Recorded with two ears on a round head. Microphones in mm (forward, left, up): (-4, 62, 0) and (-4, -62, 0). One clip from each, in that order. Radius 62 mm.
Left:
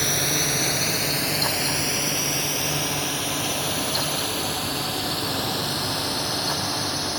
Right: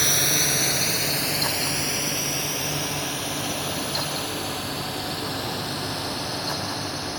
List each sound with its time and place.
0.0 s a drone: 20° right (ahead or behind); by 7.2 s 20° left (ahead or behind)